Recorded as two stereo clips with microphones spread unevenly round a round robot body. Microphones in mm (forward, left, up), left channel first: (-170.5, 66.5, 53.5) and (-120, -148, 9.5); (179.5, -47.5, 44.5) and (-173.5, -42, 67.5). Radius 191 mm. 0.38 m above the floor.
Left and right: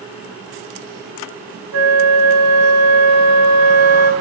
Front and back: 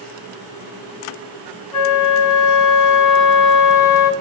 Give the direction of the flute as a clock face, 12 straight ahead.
1 o'clock.